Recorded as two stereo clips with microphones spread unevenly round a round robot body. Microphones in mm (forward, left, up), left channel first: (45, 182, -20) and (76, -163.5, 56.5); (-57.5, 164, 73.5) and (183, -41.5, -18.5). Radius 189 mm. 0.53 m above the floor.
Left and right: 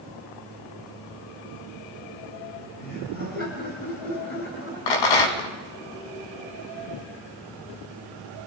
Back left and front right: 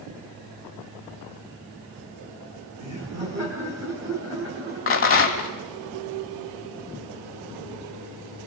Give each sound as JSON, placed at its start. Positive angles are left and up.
{"t": 2.8, "sound": "laughter", "azimuth_deg": 35, "distance_m": 5.0}
{"t": 4.9, "sound": "a rattle", "azimuth_deg": 90, "distance_m": 3.0}